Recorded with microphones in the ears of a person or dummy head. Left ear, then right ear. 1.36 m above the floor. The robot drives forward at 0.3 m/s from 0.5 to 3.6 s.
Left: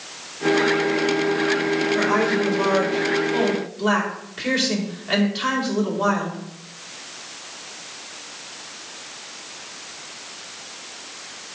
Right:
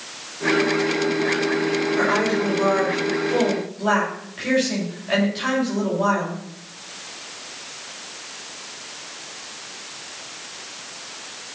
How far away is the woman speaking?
About 3.5 m.